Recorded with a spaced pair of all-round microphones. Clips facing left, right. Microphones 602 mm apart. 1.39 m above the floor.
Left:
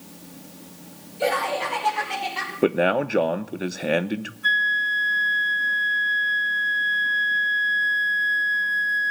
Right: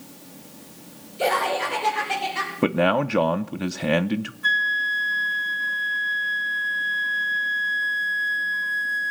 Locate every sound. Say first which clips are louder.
1.2 s laughter: even; 85° right, 4 m; by 2.5 s 90° right, 5.5 m
2.6 s a man speaking: left 1 dB; 30° right (ahead or behind), 0.6 m
4.4 s a flute: left 1 dB; 25° right (ahead or behind), 0.5 m